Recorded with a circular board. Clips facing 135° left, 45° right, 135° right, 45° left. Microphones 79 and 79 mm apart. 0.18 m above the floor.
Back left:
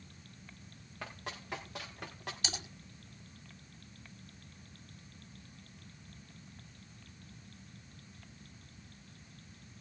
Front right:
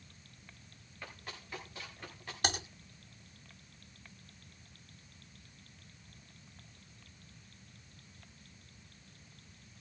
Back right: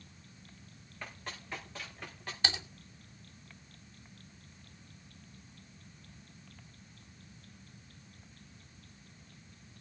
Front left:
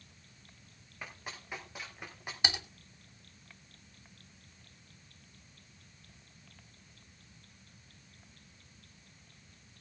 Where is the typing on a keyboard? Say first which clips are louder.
Front right 10 dB, even; 25° right, 3 m.